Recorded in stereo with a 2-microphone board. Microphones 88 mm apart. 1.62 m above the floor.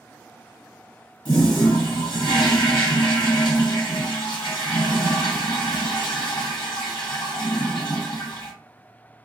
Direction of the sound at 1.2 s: 60° left (ahead or behind).